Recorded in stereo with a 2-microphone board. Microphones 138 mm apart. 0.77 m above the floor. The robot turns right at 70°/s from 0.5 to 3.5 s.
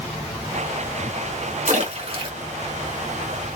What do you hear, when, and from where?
1.7 s a splash: 65° right (ahead or behind), 1.3 m; by 2.3 s 35° right (ahead or behind), 1.3 m